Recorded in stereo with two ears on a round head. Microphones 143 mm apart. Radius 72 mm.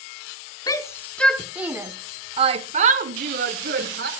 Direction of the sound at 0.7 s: 20° left (ahead or behind).